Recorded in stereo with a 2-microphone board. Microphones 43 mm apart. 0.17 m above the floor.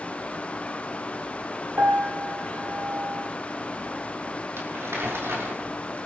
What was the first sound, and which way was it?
A piano, 65° right (ahead or behind).